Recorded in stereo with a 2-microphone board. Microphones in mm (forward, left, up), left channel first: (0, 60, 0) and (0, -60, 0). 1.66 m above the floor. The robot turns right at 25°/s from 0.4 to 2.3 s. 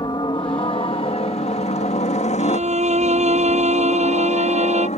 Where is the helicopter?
40° left (ahead or behind); by 5.0 s 70° left (ahead or behind).